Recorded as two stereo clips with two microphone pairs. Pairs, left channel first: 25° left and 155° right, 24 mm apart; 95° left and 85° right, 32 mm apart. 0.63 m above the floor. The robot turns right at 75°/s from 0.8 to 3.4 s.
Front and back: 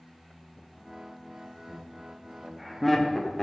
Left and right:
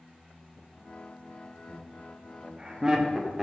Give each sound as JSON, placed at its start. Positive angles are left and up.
{"t": 1.7, "sound": "laughter", "azimuth_deg": -155, "distance_m": 0.6}